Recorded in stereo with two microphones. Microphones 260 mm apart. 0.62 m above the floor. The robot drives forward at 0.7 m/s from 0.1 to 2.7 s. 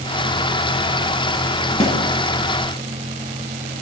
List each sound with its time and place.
1.8 s a snare drum: 25° left (ahead or behind), 3.5 m